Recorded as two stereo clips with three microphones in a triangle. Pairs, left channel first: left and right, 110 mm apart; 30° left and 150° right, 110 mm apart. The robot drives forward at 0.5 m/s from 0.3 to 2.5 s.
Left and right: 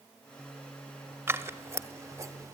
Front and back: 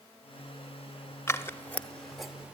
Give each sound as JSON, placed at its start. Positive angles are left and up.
{"t": 1.3, "sound": "scissors", "azimuth_deg": -30, "distance_m": 1.1}